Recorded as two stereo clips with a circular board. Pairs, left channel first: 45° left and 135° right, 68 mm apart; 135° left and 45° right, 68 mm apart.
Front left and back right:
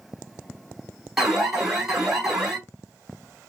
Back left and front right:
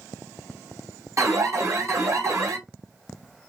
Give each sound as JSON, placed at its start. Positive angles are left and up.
{"t": 1.2, "sound": "an alarm", "azimuth_deg": -55, "distance_m": 3.0}